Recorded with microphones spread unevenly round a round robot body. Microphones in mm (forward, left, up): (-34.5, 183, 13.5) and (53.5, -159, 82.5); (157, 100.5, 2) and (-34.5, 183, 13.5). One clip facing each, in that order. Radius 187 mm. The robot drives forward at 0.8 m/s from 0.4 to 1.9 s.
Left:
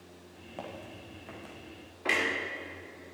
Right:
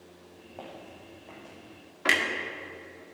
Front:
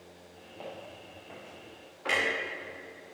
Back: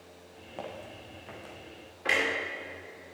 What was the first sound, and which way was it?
Footsteps, 160° left.